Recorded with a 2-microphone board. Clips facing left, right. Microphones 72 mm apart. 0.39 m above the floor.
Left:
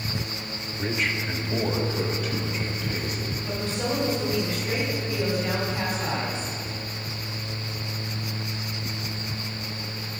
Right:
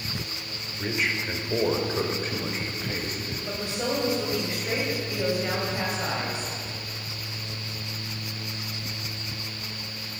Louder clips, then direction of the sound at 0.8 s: Even; centre (ahead or behind).